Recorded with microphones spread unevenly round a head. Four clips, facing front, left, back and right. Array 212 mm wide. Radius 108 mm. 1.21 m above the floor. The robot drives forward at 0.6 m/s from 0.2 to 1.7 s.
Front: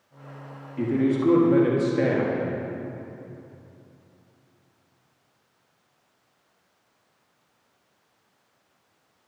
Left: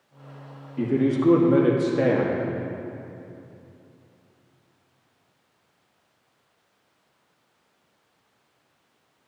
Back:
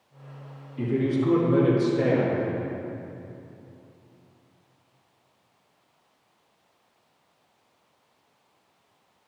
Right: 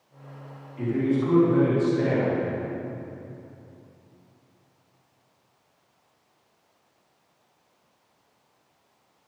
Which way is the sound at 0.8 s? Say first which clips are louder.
Left 2 dB, front 2 dB; 65° left.